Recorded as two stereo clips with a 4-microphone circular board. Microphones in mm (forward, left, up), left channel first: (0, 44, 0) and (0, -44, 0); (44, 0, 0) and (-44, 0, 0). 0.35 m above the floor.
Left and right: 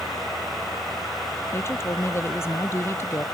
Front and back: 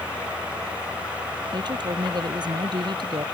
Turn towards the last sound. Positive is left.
turn(degrees=150)